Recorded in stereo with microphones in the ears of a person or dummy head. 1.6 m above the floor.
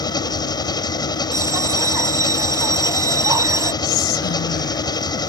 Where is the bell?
20° right (ahead or behind).